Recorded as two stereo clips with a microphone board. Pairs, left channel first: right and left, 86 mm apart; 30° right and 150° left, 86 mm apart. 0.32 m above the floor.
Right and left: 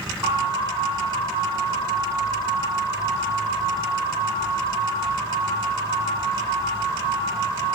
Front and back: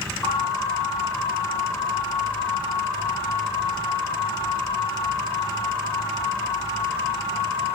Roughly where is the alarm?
Ahead left.